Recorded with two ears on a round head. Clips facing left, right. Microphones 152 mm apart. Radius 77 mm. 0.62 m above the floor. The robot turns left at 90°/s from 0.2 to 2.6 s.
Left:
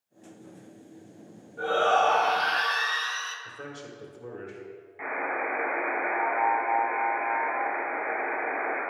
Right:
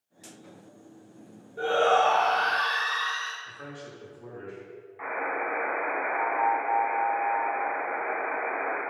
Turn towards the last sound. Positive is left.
turn(degrees=25)  # may be behind; listen again after turning